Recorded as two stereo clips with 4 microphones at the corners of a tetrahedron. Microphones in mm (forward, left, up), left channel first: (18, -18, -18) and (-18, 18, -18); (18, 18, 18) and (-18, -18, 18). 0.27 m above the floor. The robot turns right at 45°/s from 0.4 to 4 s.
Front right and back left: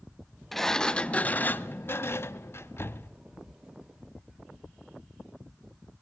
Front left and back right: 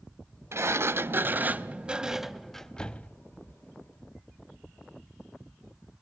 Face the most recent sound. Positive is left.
turn(degrees=25)